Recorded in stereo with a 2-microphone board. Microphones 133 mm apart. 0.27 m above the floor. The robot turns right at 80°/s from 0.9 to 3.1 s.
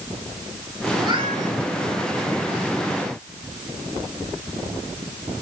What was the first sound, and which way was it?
A cat meowing, 160° right.